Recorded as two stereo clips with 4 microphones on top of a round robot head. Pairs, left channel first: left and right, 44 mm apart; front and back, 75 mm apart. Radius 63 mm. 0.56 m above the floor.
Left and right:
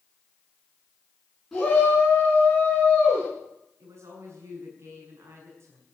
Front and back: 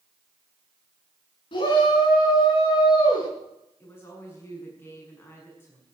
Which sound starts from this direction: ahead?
A shout, at 1.5 s.